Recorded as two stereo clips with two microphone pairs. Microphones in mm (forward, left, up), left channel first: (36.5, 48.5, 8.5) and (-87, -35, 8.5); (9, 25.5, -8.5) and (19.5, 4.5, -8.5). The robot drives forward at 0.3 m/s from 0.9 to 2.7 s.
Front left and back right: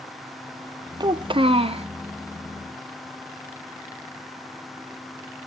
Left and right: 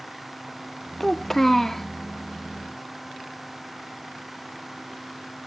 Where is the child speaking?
175° right, 0.6 m.